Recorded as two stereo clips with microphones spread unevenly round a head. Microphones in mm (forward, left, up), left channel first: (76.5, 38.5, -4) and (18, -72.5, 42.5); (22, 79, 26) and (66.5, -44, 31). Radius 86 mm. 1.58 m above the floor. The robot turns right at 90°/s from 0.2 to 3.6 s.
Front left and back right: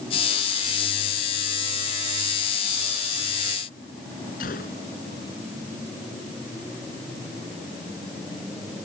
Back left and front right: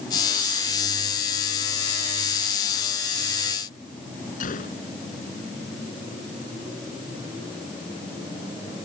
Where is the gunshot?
90° left.